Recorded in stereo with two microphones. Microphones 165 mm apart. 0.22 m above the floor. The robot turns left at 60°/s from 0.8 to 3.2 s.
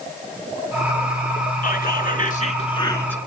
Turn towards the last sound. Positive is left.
turn(degrees=5)